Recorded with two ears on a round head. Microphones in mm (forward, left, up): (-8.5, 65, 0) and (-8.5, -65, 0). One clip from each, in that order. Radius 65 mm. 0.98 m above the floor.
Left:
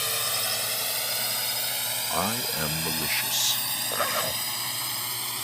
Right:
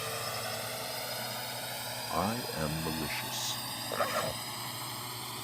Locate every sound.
0.0 s a drone: 70° left (ahead or behind); by 5.5 s 60° left (ahead or behind)
2.1 s a man speaking: 65° left (ahead or behind)
3.9 s a zipper: 35° left (ahead or behind)